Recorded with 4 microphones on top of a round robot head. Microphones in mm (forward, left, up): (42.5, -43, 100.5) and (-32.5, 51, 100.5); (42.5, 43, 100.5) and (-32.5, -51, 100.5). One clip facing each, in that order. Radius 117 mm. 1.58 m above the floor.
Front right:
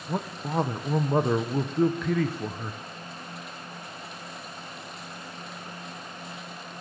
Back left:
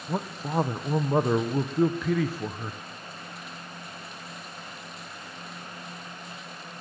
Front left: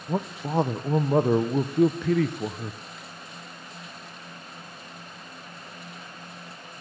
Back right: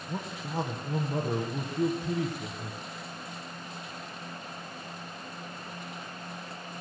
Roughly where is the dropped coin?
I don't hear a dropped coin.